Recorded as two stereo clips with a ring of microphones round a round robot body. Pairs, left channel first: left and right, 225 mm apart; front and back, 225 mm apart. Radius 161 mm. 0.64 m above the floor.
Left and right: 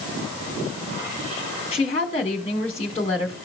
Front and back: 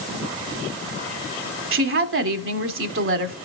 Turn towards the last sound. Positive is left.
turn(degrees=160)